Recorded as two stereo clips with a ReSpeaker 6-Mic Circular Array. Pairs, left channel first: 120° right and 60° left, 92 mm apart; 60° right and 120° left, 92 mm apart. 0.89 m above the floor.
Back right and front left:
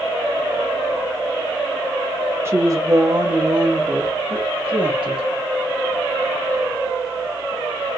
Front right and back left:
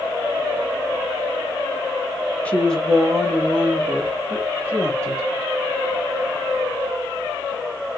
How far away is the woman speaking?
About 1.0 m.